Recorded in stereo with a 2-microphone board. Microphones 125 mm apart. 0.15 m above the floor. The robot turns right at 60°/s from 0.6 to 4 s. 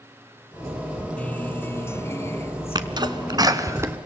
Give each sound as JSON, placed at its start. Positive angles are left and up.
{"t": 1.2, "sound": "a guitar", "side_deg": 10, "distance_m": 1.0}
{"t": 2.8, "sound": "a sneeze", "side_deg": -35, "distance_m": 1.6}